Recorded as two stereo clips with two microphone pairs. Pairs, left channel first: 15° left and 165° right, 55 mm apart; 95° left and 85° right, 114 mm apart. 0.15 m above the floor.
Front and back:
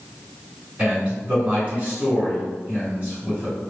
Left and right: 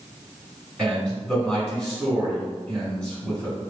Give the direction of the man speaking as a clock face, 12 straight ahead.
6 o'clock.